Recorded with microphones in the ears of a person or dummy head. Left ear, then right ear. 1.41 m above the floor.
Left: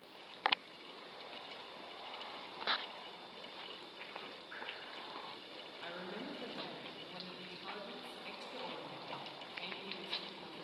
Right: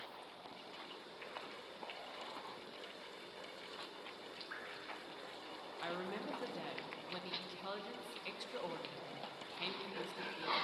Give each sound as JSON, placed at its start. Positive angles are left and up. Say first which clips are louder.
{"t": 4.5, "sound": "dripping", "louder": "left 1 dB", "side_deg": -60, "distance_m": 1.7}
{"t": 5.8, "sound": "a woman speaking", "louder": "right 3 dB", "side_deg": -40, "distance_m": 0.9}